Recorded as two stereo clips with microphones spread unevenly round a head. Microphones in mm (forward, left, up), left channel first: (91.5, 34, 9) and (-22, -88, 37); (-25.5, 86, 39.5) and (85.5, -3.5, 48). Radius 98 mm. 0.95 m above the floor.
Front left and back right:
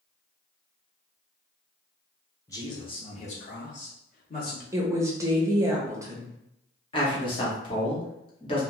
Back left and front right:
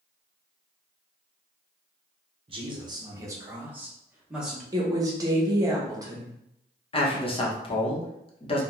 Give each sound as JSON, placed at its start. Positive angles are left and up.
{"t": 2.5, "sound": "a man speaking", "azimuth_deg": -5, "distance_m": 0.9}
{"t": 4.7, "sound": "a woman speaking", "azimuth_deg": -65, "distance_m": 0.7}
{"t": 6.9, "sound": "a man speaking", "azimuth_deg": 100, "distance_m": 0.9}